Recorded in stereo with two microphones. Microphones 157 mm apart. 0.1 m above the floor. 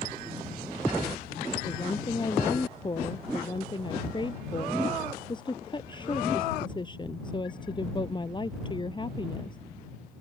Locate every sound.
1.6 s a woman speaking: 30° left (ahead or behind)